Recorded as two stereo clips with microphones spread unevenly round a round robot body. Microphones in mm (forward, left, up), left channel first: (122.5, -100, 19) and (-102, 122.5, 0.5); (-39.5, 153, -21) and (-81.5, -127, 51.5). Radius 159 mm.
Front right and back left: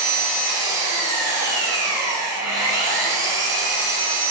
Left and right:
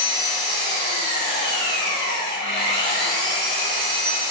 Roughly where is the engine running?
Left.